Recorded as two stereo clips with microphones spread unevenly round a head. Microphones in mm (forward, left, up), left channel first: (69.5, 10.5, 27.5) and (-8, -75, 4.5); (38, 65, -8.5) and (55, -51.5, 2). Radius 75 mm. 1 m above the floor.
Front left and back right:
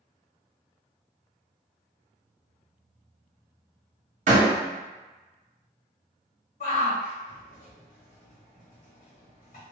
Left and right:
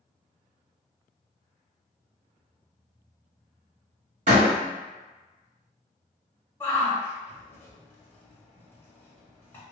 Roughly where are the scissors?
No scissors in this recording.